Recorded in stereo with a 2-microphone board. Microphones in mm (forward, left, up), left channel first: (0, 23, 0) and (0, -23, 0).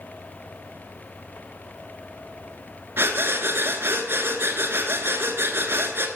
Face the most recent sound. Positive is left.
turn(degrees=-60)  # may be behind; listen again after turning